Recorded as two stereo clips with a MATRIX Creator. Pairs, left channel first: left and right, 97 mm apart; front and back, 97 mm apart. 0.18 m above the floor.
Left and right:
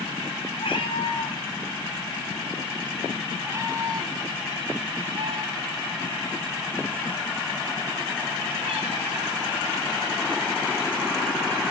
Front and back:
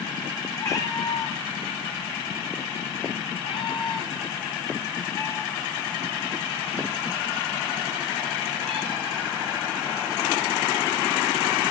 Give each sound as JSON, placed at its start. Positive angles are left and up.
{"t": 0.6, "sound": "a cat meowing", "azimuth_deg": 60, "distance_m": 3.5}